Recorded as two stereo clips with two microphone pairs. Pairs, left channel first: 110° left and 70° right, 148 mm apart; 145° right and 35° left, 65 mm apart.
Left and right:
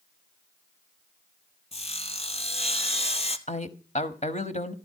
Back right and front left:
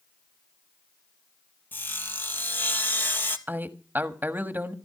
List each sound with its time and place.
1.7 s sawing: 160° left, 1.1 m
3.5 s a man speaking: 85° left, 1.3 m